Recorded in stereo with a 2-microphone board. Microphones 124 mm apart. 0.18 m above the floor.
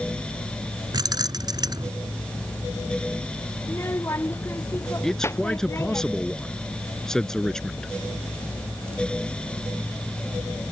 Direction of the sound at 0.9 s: 35° right (ahead or behind).